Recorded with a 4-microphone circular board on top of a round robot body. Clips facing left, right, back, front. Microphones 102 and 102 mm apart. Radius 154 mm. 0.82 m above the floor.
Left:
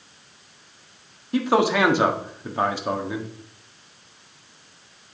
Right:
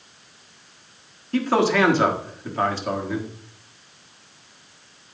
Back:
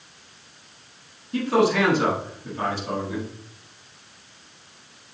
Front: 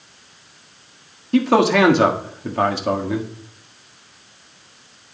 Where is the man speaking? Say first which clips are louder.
Even, front 5 dB; 15° left, 1.5 m.